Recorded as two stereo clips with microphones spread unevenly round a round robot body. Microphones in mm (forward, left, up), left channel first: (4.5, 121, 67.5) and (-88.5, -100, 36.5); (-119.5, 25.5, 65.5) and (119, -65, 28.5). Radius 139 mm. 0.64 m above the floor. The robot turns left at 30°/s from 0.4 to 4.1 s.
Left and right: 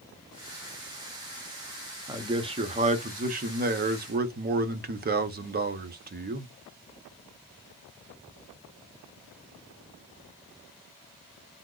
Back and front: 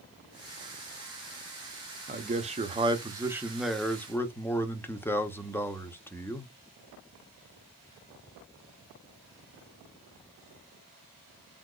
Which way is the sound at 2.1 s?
50° right.